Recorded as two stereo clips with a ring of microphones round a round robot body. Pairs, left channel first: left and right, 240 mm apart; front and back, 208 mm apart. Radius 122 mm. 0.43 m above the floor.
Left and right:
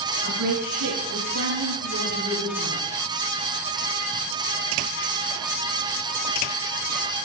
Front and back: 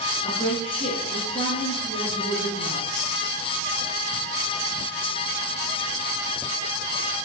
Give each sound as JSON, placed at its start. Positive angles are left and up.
{"t": 0.2, "sound": "a woman speaking", "azimuth_deg": -70, "distance_m": 5.0}